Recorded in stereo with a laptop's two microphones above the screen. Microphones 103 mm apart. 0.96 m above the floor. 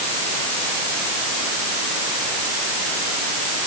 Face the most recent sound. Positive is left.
No sound to turn to.